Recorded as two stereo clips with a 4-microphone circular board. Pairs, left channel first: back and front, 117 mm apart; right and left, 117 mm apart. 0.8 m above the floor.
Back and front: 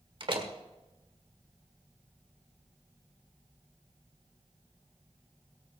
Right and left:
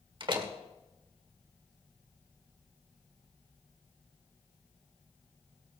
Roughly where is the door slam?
Ahead left.